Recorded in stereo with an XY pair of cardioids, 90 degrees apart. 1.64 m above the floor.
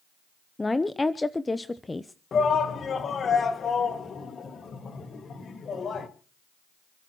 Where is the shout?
50° left, 2.5 m.